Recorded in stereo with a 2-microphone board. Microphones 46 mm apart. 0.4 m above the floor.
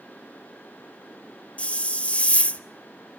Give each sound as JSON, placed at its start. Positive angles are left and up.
{"t": 1.6, "sound": "a hiss", "side_deg": 25, "distance_m": 0.7}